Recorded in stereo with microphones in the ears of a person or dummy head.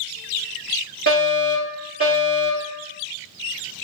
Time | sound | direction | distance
1.1 | a fire alarm | 40° right (ahead or behind) | 1.4 m